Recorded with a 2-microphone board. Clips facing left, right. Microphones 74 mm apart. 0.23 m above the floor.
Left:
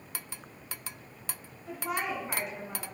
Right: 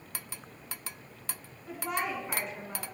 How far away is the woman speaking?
About 1.6 m.